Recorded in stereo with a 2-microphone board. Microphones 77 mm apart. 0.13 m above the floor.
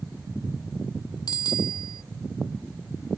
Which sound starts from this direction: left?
A bicycle bell, at 1.3 s.